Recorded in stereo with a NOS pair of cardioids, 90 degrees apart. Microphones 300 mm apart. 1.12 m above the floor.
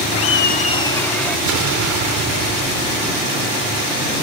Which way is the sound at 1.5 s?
65° right.